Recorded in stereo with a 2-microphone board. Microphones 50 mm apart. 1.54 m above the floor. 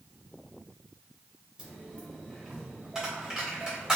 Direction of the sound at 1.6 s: 15° right (ahead or behind).